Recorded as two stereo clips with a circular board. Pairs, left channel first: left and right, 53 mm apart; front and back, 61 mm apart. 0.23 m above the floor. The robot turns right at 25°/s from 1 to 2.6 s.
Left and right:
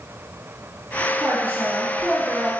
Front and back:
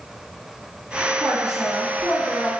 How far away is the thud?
I don't hear a thud.